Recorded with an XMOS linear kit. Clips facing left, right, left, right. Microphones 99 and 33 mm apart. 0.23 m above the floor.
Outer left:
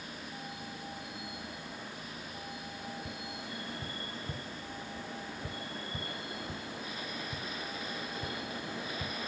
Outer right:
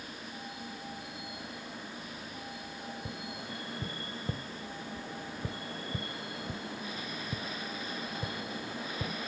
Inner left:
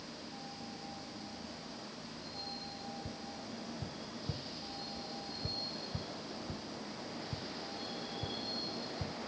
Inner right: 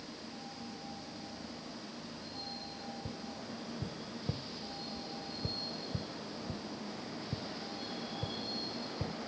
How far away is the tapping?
About 0.7 m.